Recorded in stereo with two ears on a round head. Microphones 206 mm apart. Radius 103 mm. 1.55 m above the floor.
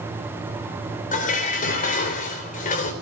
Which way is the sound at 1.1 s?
35° left (ahead or behind).